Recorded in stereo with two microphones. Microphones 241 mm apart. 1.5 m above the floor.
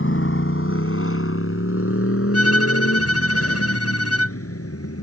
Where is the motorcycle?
55° left (ahead or behind); by 5.0 s 75° left (ahead or behind).